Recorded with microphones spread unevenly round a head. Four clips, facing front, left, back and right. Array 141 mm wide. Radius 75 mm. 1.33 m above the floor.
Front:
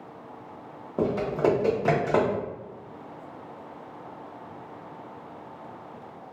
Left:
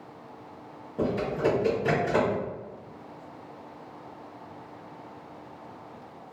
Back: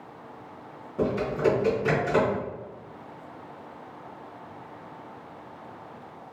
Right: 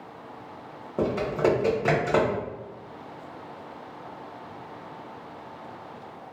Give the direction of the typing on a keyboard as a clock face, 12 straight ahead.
1 o'clock.